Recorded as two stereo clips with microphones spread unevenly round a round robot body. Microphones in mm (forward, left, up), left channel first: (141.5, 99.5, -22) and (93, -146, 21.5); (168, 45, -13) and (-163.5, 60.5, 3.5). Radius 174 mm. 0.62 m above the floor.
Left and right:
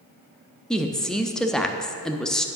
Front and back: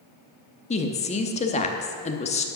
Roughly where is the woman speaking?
Ahead.